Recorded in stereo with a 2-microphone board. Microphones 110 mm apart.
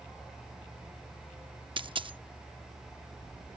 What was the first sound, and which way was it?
A dropped coin, 50° right (ahead or behind).